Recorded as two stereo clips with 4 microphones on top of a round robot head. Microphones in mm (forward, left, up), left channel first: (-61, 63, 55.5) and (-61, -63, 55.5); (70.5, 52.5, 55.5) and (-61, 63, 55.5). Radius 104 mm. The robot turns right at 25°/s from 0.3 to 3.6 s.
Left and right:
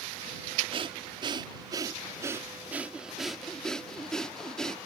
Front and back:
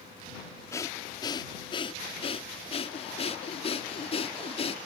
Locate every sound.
0.7 s breathing: 65° right; by 4.8 s 5° left